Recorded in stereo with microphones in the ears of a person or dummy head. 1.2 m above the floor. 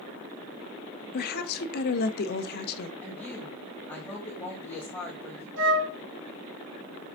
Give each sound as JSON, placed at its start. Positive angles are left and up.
{"t": 1.1, "sound": "a woman speaking", "side_deg": 55, "distance_m": 1.2}
{"t": 3.0, "sound": "a woman speaking", "side_deg": 5, "distance_m": 2.0}
{"t": 5.6, "sound": "a flute", "side_deg": -65, "distance_m": 3.5}